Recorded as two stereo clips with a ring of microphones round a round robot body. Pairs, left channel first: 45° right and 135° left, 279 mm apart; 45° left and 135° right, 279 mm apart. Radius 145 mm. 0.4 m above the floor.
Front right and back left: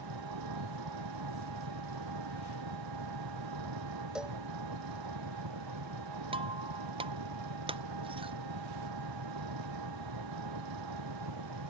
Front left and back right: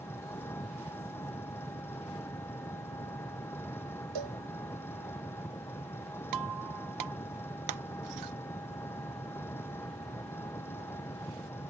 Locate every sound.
0.0 s an engine running: 125° left
4.2 s a cowbell: 140° right
6.3 s breaking glass: 155° right